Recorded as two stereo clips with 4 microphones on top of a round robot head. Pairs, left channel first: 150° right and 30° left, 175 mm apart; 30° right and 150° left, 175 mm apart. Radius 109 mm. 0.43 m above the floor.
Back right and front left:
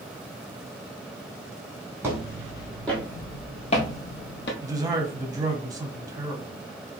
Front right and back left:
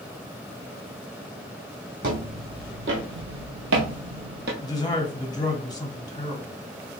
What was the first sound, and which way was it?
Footsteps, 110° left.